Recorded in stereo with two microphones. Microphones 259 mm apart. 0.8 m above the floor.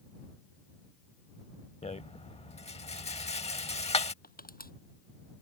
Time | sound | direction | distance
1.8 | a rattle | 25° left (ahead or behind) | ?
4.2 | crushing | 35° left (ahead or behind) | ?